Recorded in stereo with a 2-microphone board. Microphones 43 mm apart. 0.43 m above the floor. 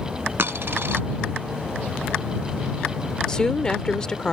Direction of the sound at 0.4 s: 60° right (ahead or behind).